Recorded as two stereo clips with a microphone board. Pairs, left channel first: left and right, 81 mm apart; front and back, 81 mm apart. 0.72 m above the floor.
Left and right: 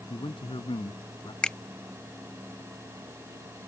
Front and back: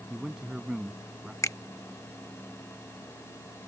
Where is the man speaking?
95° left.